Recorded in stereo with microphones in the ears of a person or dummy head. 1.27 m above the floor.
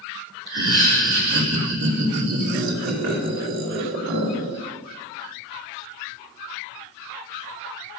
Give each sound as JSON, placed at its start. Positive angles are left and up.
{"t": 0.5, "sound": "laughter", "side_deg": -65, "distance_m": 2.5}